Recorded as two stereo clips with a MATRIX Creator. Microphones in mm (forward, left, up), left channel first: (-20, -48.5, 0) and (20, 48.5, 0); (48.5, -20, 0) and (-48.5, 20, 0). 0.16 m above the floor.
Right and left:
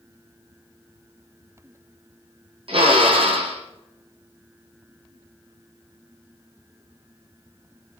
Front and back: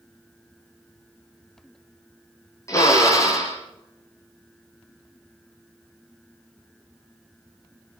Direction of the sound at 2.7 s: 35° left.